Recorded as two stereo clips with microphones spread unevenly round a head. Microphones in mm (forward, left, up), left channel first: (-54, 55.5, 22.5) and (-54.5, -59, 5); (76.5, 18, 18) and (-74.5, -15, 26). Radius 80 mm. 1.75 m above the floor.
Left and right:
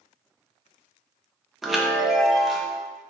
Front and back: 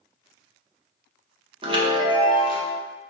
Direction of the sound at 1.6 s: 170° left.